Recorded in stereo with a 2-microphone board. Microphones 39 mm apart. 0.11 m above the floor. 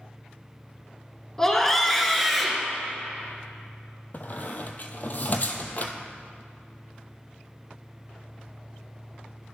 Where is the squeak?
45° left (ahead or behind), 0.8 m.